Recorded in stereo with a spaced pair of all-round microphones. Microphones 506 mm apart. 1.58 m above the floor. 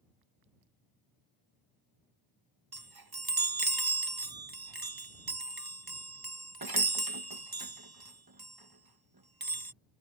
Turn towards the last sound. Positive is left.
turn(degrees=-45)  # may be behind; listen again after turning